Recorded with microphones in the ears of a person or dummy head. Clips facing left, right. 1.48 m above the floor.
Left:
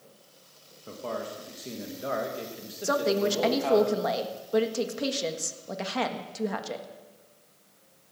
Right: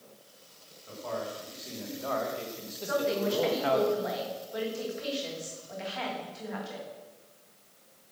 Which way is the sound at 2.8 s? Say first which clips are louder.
Left 3 dB; 65° left (ahead or behind).